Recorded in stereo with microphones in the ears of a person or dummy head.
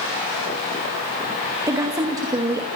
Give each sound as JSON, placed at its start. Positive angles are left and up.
{"t": 1.7, "sound": "a woman speaking", "side_deg": -15, "distance_m": 2.0}